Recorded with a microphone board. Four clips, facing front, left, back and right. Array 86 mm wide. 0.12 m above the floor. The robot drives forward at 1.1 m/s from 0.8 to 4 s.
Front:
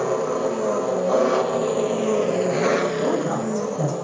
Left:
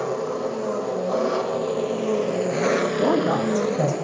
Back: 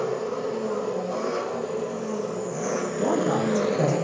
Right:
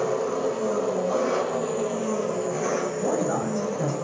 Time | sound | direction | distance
0.0 | an engine running | 10° left | 2.5 m
3.0 | a man speaking | 105° left | 5.5 m